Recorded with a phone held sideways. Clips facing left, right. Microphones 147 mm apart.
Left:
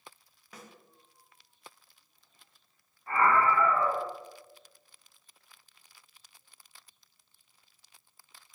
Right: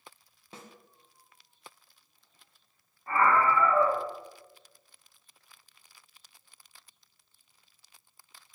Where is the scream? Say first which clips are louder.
Right 1 dB; 35° right (ahead or behind), 1.8 m.